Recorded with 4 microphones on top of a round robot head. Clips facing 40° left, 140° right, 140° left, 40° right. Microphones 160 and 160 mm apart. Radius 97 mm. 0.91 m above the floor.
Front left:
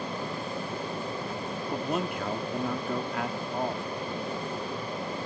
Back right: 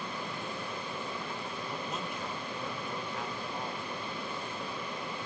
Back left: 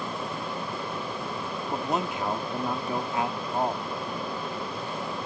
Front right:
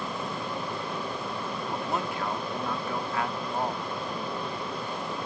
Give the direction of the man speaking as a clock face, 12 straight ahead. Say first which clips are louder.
Front left 11 dB, back left 4 dB; 10 o'clock.